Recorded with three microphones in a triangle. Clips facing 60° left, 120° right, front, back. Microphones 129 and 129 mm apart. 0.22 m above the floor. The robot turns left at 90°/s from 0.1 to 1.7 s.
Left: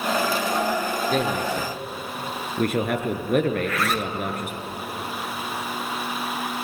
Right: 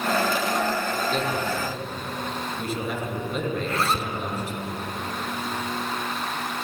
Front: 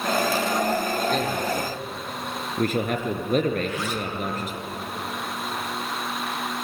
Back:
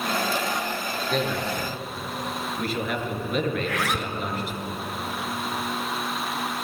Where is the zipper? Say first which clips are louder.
Left 1 dB, even; straight behind, 0.8 m.